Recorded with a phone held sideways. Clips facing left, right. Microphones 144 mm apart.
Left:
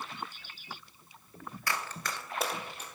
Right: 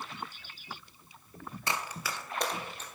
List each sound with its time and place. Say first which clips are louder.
1.7 s running footsteps: right 1 dB; 25° right (ahead or behind), 1.0 m; by 2.9 s 10° left (ahead or behind), 1.9 m